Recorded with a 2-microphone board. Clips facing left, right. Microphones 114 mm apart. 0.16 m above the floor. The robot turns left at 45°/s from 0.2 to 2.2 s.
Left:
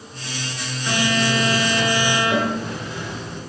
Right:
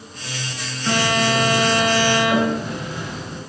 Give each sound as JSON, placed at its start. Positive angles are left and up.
{"t": 0.9, "sound": "a phone buzzing", "azimuth_deg": -105, "distance_m": 1.9}